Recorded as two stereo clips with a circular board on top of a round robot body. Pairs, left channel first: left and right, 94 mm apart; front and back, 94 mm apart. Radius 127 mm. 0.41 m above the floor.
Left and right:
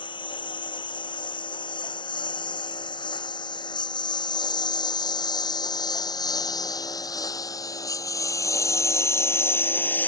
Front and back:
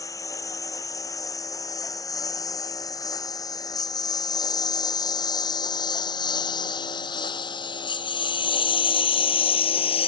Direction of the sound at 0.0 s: 55° left.